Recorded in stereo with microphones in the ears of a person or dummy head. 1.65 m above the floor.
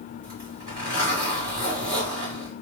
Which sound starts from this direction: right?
A zipper, at 0.2 s.